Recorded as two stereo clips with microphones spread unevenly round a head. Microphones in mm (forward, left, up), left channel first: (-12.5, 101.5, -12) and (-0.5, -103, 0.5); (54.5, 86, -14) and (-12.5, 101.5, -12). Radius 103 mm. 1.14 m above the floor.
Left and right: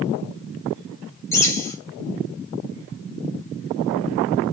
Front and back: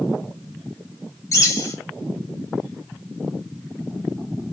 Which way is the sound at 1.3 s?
15° left.